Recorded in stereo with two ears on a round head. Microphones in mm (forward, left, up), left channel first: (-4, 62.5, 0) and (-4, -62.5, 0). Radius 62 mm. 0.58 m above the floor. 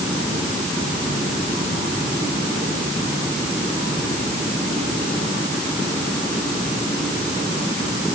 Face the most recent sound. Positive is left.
No sound to turn to.